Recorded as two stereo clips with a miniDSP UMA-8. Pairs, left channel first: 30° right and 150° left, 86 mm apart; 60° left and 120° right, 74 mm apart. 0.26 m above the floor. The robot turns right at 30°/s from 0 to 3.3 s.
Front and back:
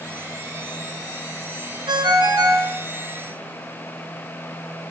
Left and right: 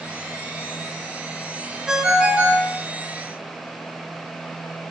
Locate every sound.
1.9 s a ringtone: 165° left, 1.6 m; by 2.7 s 170° right, 1.6 m